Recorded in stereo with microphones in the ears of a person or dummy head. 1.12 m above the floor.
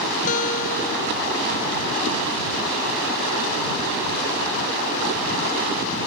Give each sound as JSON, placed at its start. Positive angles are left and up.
{"t": 0.3, "sound": "a guitar", "side_deg": 45}